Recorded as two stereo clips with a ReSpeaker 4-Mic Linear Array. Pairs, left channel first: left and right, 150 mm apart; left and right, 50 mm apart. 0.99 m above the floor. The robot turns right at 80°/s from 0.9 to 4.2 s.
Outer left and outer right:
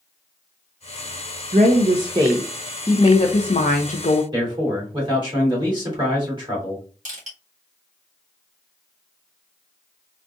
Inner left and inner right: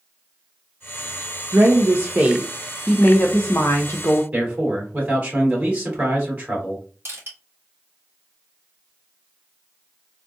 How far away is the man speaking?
About 2.5 m.